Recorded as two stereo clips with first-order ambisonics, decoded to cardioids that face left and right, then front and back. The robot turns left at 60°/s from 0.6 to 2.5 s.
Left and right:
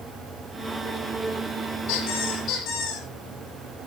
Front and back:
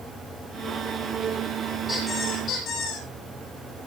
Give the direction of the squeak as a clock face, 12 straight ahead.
9 o'clock.